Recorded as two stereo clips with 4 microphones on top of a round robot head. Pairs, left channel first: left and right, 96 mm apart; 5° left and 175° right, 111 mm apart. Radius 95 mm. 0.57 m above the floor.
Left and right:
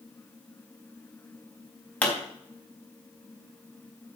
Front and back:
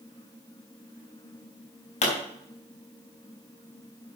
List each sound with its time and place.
2.0 s a pop: 15° left, 4 m